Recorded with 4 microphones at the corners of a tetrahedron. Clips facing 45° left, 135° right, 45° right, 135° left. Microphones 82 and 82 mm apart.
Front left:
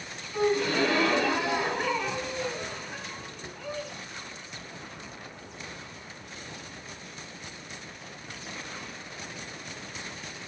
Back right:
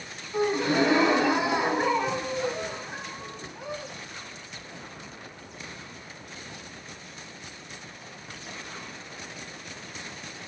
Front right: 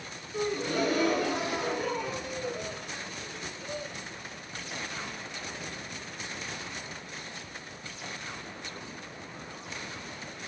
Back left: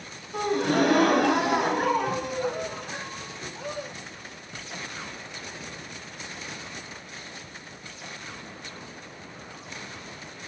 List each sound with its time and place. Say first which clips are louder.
0.3 s a gasp: back right 1 dB, back left 6 dB; 160° left, 1.2 m